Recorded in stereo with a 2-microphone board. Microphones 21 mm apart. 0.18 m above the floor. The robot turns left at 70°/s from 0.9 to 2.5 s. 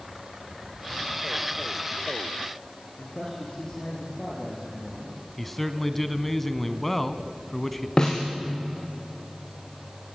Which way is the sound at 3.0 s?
45° left (ahead or behind).